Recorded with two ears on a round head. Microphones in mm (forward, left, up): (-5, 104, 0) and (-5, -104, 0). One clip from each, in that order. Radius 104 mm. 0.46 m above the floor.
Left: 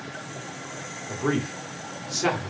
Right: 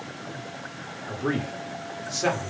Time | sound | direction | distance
1.1 | a man speaking | 5° left (ahead or behind) | 1.3 m